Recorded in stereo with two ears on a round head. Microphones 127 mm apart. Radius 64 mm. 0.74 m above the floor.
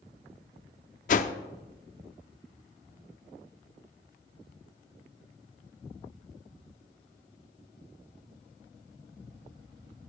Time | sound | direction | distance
1.1 | a whoosh | 60° left (ahead or behind) | 0.6 m